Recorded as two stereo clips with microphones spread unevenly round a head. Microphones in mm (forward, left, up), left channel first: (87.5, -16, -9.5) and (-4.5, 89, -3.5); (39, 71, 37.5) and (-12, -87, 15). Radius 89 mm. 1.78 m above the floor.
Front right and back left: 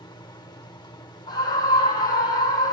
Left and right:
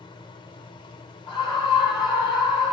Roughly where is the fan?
Ahead.